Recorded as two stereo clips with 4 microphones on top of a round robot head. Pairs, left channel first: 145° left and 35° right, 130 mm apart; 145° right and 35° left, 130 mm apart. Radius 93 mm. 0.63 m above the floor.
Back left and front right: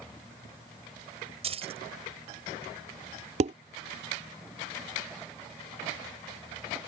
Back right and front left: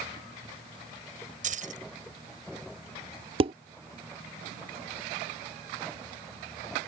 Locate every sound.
1.4 s keys jangling: 10° left
3.4 s dishes clattering: 5° right